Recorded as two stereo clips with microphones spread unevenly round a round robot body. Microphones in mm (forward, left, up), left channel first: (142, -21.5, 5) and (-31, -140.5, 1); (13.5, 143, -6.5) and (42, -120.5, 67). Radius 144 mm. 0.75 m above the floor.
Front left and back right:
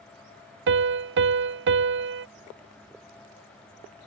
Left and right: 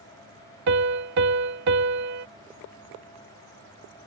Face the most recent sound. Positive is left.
turn(degrees=-125)